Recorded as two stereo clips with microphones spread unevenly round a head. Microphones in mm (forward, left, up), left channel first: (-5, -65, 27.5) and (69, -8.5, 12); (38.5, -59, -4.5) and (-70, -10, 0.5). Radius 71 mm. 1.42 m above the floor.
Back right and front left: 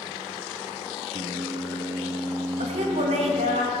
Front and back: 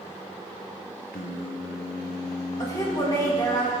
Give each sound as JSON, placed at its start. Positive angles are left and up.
{"t": 1.1, "sound": "singing", "azimuth_deg": -5, "distance_m": 1.1}
{"t": 2.6, "sound": "a woman speaking", "azimuth_deg": 45, "distance_m": 1.9}